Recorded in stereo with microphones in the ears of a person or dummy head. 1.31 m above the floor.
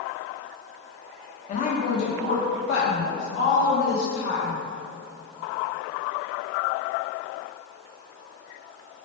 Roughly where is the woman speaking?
Left.